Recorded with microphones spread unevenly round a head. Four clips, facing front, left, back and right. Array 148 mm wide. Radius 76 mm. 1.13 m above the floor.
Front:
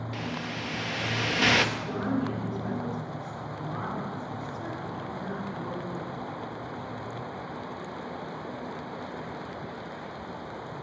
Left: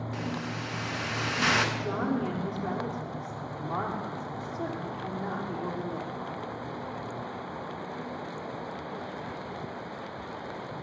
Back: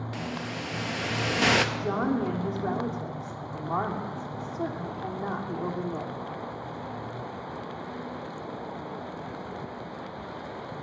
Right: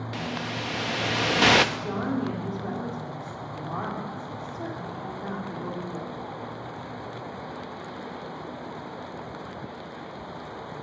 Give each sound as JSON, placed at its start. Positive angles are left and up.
{"t": 0.1, "sound": "a hiss", "azimuth_deg": -110, "distance_m": 0.8}
{"t": 1.8, "sound": "a woman speaking", "azimuth_deg": 175, "distance_m": 2.5}